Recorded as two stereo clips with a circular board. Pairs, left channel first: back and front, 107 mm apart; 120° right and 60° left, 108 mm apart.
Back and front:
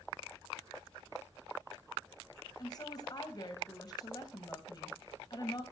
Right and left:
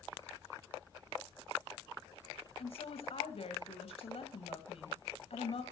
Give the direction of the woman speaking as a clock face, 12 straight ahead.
4 o'clock.